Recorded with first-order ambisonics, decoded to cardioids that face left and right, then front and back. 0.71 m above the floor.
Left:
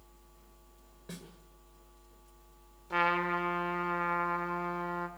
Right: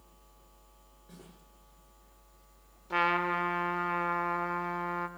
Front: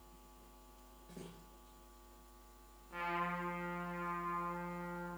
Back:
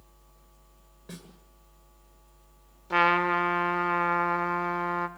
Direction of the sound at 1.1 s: 140° left.